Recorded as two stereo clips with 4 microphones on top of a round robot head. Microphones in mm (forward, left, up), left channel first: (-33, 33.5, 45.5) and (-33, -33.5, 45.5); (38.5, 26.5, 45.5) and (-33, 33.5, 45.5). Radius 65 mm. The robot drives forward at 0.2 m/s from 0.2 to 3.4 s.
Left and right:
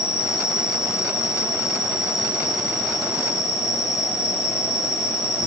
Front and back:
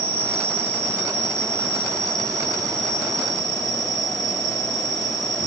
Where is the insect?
160° right, 1.1 m; by 5.5 s 170° right, 1.5 m.